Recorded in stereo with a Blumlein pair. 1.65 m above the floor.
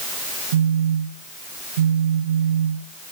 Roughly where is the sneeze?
No sneeze in this recording.